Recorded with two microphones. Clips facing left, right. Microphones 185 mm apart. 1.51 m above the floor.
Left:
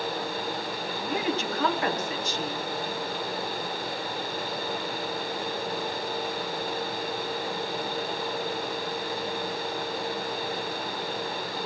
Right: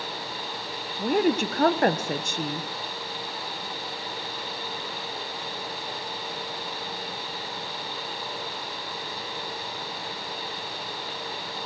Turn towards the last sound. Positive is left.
turn(degrees=-50)  # may be behind; listen again after turning